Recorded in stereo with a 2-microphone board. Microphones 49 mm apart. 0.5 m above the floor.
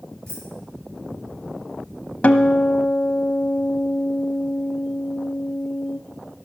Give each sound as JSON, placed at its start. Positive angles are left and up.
{"t": 0.3, "sound": "keys jangling", "side_deg": -60, "distance_m": 6.0}
{"t": 2.2, "sound": "a guitar", "side_deg": 30, "distance_m": 0.7}